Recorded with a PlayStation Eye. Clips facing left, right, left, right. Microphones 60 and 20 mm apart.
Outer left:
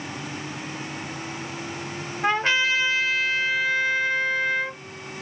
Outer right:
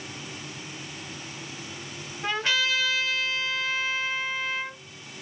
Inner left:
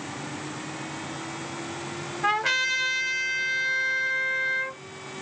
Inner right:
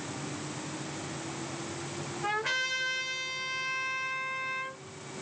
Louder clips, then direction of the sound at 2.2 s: Outer left 5 dB, inner left 7 dB; 35° left (ahead or behind).